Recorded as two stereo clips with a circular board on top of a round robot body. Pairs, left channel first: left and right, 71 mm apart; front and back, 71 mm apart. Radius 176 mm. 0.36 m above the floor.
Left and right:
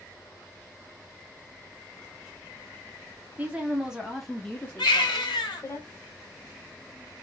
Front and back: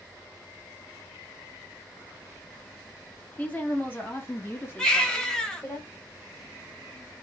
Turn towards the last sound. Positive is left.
turn(degrees=85)